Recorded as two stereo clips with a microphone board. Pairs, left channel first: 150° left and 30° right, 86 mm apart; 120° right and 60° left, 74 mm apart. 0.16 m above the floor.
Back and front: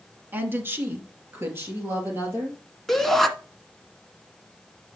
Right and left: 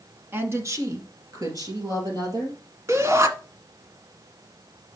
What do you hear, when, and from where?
0.3 s a woman speaking: 25° left, 1.3 m; by 2.6 s 30° left, 4.5 m
2.9 s a shout: 70° left, 1.6 m